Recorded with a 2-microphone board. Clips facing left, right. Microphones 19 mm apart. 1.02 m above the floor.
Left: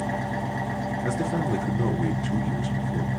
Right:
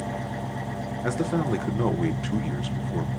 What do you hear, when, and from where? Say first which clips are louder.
0.0 s an engine running: left 3 dB; 50° left (ahead or behind), 0.8 m
1.0 s a man speaking: right 3 dB; 50° right (ahead or behind), 0.7 m